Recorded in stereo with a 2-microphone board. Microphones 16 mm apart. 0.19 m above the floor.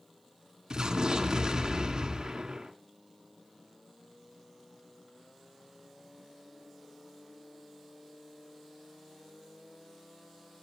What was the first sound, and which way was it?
An explosion, 50° right (ahead or behind).